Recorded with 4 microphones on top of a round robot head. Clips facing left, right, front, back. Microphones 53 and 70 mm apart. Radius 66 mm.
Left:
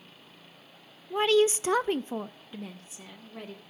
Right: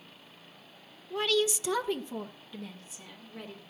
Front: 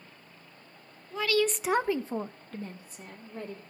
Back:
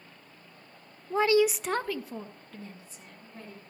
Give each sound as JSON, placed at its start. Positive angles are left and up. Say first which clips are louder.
{"t": 1.1, "sound": "a woman speaking", "louder": "left 6 dB, back 4 dB", "azimuth_deg": 145, "distance_m": 0.5}